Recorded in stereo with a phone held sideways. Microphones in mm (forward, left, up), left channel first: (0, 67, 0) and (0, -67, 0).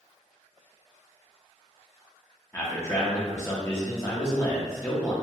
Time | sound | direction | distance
2.5 | a man speaking | 20° left (ahead or behind) | 0.6 m